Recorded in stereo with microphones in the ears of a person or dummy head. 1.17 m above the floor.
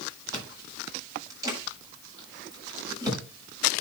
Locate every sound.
0.3 s chewing: 25° right (ahead or behind), 6 m